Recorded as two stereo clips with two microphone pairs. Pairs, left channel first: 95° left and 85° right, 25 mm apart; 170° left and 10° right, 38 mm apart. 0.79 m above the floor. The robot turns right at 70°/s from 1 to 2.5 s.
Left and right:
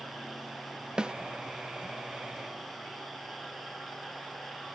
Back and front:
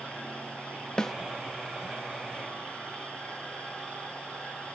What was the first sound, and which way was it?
A snare drum, 125° right.